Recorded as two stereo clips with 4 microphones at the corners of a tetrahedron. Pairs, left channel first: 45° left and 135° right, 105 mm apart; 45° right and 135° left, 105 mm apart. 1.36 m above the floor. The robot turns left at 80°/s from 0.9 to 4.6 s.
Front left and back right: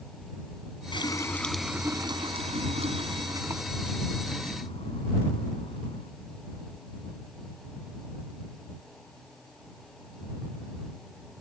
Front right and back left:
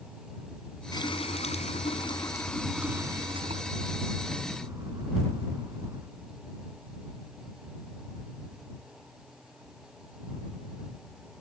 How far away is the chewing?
No chewing in this recording.